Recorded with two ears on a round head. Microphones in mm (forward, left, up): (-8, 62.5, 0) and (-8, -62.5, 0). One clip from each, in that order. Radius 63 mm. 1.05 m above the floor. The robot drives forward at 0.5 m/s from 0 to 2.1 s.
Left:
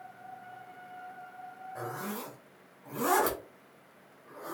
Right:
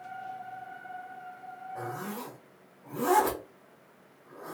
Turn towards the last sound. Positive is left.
turn(degrees=70)  # may be behind; listen again after turning